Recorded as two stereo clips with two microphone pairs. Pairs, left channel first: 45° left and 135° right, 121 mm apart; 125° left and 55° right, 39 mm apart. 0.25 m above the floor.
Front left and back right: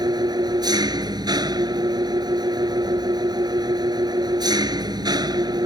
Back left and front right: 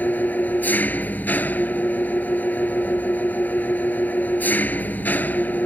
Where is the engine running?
165° left.